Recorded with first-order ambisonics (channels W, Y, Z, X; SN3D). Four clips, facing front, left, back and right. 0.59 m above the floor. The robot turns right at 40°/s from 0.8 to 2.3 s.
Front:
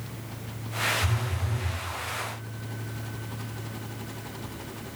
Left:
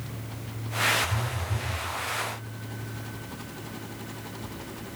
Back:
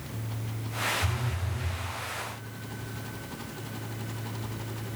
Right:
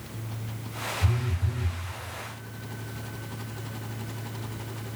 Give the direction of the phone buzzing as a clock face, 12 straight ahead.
3 o'clock.